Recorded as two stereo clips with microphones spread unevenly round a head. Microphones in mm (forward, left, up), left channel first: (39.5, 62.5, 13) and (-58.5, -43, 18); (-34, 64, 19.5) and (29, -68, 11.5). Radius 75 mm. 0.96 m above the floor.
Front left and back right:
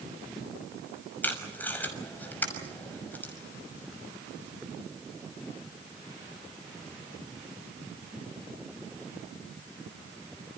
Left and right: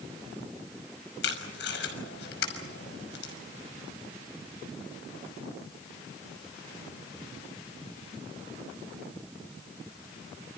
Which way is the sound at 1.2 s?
125° left.